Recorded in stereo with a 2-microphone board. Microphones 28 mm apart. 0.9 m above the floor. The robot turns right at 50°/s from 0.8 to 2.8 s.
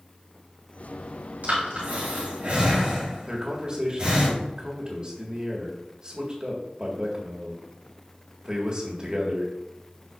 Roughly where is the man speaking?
Right.